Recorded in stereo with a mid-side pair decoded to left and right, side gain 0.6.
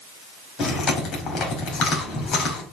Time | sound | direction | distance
0.6 | chewing | 45° left | 4.5 m